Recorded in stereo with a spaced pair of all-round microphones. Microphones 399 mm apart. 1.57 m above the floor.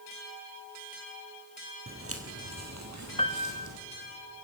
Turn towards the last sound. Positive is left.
turn(degrees=15)  # may be behind; listen again after turning